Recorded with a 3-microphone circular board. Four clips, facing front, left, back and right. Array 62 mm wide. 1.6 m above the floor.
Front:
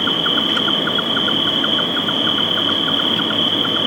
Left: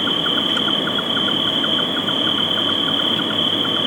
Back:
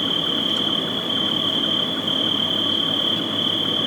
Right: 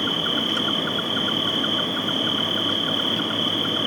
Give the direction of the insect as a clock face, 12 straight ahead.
11 o'clock.